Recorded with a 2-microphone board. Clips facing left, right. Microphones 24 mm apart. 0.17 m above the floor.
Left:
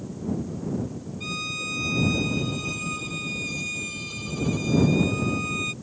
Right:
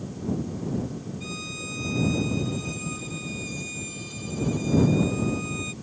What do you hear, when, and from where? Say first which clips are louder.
1.2 s a violin: left 9 dB; 25° left (ahead or behind)